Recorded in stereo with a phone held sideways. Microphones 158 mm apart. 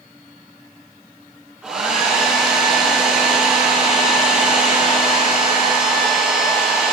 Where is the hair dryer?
5° right (ahead or behind), 5 m.